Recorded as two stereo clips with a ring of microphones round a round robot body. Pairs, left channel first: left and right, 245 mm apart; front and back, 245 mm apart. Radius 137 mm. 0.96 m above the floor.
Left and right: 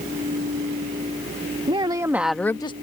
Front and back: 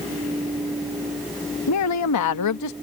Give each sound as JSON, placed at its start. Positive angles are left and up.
{"t": 1.7, "sound": "a woman speaking", "azimuth_deg": -20}